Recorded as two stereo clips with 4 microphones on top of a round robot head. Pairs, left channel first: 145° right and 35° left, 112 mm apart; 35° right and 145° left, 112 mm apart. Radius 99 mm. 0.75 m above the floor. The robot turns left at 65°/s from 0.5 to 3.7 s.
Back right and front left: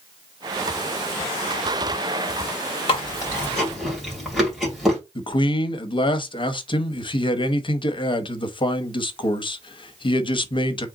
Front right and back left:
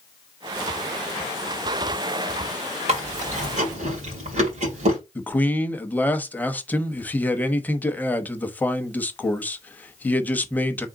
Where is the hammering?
No hammering in this recording.